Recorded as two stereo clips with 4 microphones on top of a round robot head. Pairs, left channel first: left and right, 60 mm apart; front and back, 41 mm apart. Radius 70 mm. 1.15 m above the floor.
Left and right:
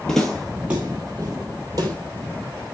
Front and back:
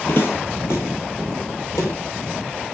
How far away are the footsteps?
About 1.3 m.